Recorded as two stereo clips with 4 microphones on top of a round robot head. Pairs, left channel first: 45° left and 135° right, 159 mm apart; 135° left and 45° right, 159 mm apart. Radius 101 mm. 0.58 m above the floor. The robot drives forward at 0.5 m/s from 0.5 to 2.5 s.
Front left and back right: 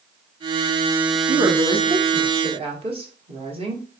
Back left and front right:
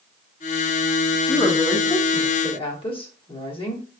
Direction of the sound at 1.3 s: Straight behind.